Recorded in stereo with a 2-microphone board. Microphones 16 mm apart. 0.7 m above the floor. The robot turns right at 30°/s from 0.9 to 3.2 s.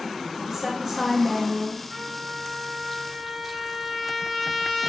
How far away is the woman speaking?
About 0.7 m.